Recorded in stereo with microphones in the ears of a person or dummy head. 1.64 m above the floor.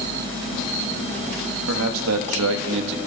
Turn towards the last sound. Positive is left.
turn(degrees=-60)  # may be behind; listen again after turning